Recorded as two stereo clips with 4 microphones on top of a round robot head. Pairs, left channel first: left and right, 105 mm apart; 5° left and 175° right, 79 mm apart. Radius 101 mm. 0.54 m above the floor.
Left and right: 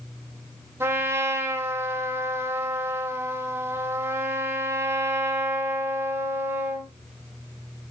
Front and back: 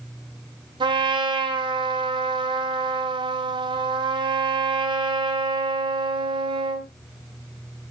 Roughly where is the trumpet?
Behind.